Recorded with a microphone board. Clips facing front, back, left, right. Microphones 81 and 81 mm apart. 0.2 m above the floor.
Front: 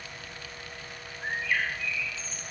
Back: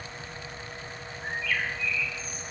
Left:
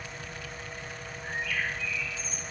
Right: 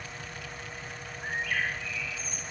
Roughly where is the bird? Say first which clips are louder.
Front 1 dB, right 1 dB; ahead right.